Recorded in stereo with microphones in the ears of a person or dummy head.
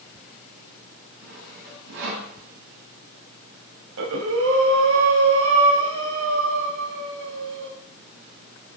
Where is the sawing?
65° right (ahead or behind), 6 m.